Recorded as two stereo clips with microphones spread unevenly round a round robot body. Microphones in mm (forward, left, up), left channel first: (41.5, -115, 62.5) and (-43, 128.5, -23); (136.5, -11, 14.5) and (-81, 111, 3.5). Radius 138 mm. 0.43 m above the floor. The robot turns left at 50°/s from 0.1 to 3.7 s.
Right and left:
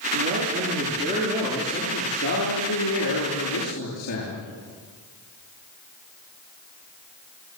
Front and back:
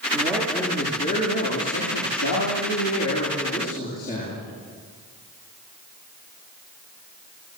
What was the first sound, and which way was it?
A man speaking, 90° left.